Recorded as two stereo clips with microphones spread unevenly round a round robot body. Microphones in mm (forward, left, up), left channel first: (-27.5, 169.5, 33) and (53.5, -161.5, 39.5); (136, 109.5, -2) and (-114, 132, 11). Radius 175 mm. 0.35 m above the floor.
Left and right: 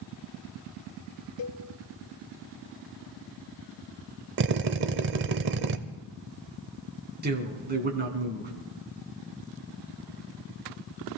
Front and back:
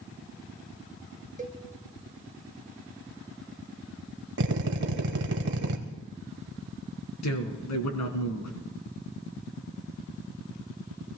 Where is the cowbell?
115° left, 1.1 m.